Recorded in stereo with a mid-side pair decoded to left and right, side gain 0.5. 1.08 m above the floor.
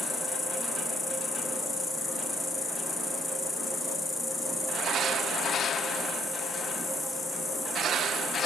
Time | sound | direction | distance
0.0 | an insect | 25° left | 0.8 m